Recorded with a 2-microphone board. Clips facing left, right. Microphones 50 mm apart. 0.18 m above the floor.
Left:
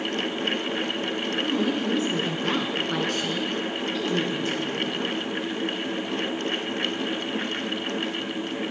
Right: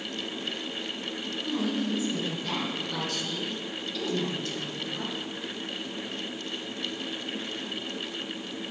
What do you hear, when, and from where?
1.4 s a woman speaking: 55° left (ahead or behind), 2.5 m; by 5.1 s 20° left (ahead or behind), 3.5 m